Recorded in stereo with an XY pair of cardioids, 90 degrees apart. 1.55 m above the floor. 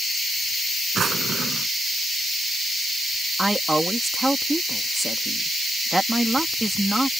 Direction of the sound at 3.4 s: 10° right.